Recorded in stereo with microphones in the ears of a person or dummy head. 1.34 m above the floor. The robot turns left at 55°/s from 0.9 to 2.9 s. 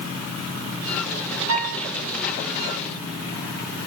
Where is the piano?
75° right (ahead or behind), 8 m; by 1.9 s 80° right, 8 m.